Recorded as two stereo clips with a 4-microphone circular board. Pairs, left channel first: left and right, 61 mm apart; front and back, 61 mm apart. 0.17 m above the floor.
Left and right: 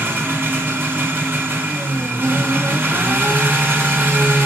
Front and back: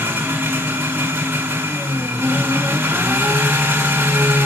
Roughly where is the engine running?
Behind right.